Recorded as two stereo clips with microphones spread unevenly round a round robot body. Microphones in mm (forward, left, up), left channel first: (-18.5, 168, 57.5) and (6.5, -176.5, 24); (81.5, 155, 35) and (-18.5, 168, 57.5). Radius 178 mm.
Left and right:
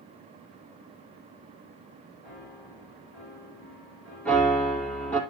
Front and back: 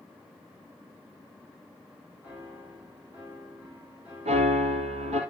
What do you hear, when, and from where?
2.2 s a piano: 95° left, 8.5 m
4.2 s a piano: straight behind, 3 m